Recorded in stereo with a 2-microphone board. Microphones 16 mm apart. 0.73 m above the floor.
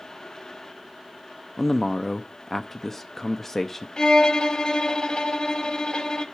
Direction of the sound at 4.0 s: 55° left (ahead or behind).